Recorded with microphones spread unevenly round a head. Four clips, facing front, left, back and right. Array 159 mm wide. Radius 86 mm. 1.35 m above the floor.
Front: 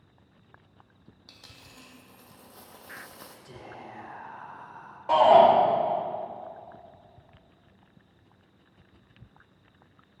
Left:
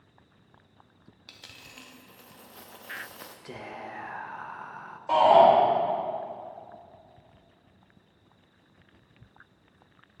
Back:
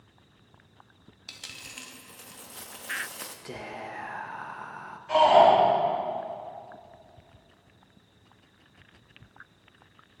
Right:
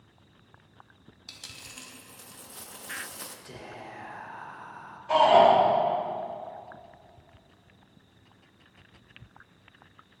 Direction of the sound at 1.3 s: 90° left.